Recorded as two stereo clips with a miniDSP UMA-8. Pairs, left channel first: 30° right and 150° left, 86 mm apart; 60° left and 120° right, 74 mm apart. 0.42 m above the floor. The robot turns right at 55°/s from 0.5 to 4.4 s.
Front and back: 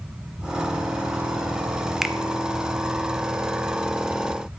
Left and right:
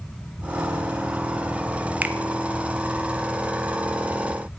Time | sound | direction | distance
2.0 | a finger snap | 135° right | 0.8 m